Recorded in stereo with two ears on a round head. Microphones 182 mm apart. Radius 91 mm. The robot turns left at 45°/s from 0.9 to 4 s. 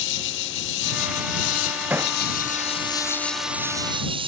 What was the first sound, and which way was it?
An insect, 110° left.